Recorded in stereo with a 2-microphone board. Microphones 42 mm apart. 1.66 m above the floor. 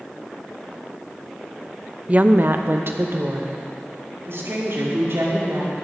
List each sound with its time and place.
2.1 s a woman speaking: 30° right (ahead or behind), 0.6 m; by 5.8 s 70° right (ahead or behind), 5.5 m